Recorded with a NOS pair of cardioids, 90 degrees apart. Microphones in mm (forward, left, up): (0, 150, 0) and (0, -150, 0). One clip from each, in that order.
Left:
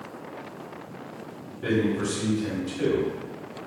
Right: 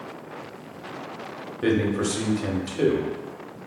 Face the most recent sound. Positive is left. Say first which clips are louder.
# right 2 dB
turn(degrees=-55)